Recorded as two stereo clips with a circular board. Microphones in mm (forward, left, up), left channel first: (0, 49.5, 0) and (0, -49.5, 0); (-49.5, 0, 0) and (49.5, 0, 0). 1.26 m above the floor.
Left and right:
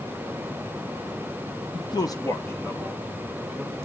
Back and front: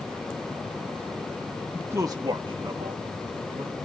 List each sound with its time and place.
1.7 s a man speaking: 75° left, 0.9 m; by 3.8 s 5° left, 3 m